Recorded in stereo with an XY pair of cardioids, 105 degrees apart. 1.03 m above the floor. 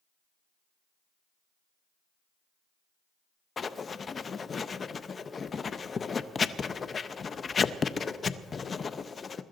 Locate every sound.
3.6 s writing: 35° left, 0.7 m